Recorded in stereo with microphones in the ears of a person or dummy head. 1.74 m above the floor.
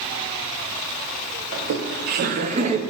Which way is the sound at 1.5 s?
60° right (ahead or behind).